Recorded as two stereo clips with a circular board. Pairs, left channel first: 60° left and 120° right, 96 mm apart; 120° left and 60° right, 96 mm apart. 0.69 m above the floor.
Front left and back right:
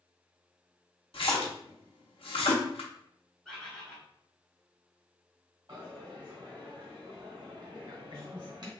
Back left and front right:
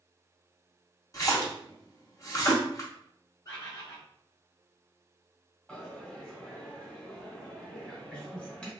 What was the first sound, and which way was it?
A splash, 65° left.